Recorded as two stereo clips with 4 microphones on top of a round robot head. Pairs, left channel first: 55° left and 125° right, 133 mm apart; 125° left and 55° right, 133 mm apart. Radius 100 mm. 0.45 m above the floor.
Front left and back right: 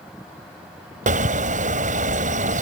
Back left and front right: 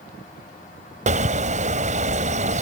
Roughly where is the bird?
Right.